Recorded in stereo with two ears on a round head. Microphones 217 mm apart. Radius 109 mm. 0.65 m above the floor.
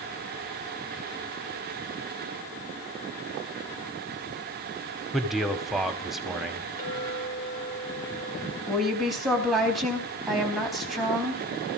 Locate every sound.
5.1 s a man speaking: centre (ahead or behind), 1.7 m
6.8 s a clink: 35° left (ahead or behind), 5 m
8.7 s a woman speaking: centre (ahead or behind), 4.5 m